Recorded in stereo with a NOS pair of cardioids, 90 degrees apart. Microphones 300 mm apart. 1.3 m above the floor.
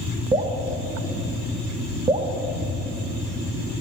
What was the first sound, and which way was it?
Dripping, 20° right.